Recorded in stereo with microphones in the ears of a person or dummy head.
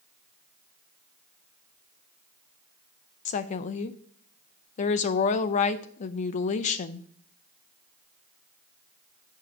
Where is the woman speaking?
40° left (ahead or behind), 0.6 m.